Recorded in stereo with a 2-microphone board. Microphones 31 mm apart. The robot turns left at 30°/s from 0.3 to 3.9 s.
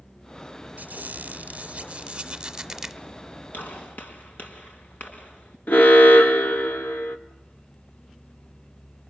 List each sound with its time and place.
0.8 s a squeak: 105° right, 1.2 m; by 3.0 s 175° right, 1.2 m
3.5 s a gunshot: 75° left (ahead or behind), 4 m; by 5.6 s 65° left (ahead or behind), 4 m
5.7 s an alarm: 65° left (ahead or behind), 1.5 m